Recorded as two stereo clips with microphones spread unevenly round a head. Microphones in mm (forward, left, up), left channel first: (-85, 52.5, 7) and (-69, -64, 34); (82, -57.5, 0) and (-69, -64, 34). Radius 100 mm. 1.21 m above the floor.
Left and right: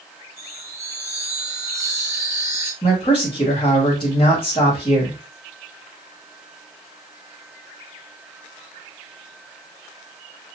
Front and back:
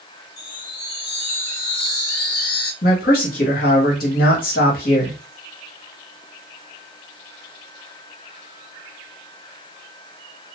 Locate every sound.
0.4 s a chime: 5° right, 1.3 m
2.8 s a man speaking: 40° left, 1.4 m